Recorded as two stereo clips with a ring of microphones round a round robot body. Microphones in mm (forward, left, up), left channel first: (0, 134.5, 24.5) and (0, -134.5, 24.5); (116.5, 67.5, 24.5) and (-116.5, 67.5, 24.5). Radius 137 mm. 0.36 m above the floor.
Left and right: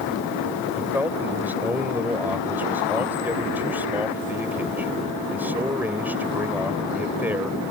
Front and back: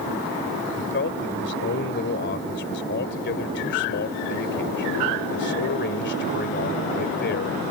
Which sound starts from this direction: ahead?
A man speaking, at 0.8 s.